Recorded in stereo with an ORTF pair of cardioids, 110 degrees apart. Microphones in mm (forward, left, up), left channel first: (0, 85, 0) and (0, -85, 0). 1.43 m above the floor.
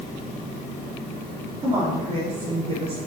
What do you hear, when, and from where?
1.6 s a woman speaking: 35° right, 3 m